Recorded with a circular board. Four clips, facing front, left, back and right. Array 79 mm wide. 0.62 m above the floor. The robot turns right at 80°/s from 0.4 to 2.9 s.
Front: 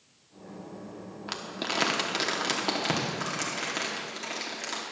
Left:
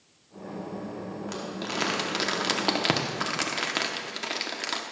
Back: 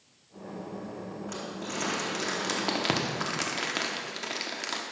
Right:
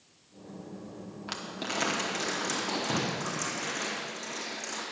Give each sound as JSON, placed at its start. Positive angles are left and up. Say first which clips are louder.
{"t": 1.3, "sound": "crumpling", "louder": "even, front 5 dB", "azimuth_deg": -25, "distance_m": 1.0}